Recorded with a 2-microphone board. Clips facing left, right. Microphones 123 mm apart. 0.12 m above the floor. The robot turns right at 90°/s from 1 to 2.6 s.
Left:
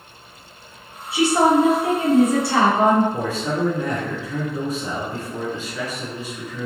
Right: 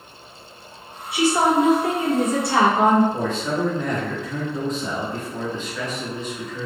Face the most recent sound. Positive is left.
turn(degrees=10)  # may be behind; listen again after turning